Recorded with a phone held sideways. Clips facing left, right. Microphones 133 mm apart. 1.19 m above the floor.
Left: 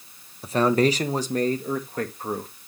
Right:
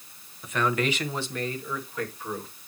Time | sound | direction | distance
0.4 | a man speaking | 30° left (ahead or behind) | 0.8 m